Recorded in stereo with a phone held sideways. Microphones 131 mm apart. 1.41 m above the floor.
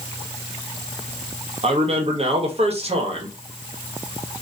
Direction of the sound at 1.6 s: 50° right (ahead or behind).